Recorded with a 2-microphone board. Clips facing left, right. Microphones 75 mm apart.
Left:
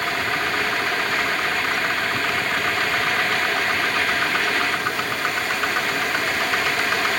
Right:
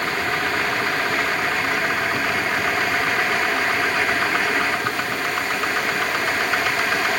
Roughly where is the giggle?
No giggle in this recording.